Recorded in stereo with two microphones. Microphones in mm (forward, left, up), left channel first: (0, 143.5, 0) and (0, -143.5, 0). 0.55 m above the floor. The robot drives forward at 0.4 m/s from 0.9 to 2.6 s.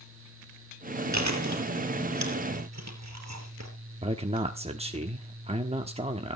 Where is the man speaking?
20° right (ahead or behind), 1.0 m.